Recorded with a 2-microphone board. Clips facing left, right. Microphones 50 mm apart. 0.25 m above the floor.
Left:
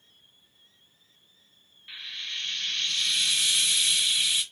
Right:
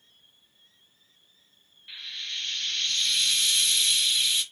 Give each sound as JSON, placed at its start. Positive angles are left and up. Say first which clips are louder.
{"t": 1.9, "sound": "frying", "louder": "even", "side_deg": 10, "distance_m": 1.1}